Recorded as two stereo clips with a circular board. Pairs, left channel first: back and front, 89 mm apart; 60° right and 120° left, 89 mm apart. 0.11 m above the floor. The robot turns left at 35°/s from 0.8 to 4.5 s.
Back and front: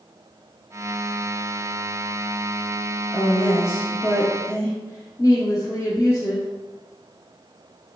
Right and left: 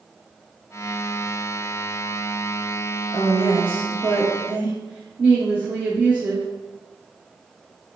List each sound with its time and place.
3.1 s a woman speaking: 120° right, 1.5 m; by 6.5 s 170° right, 1.5 m